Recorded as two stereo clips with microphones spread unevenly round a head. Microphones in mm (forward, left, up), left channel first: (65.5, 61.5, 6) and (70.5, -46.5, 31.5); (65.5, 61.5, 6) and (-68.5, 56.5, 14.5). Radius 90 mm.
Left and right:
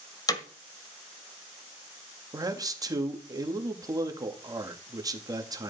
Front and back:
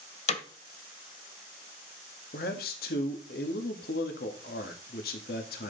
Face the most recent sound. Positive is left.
turn(degrees=-30)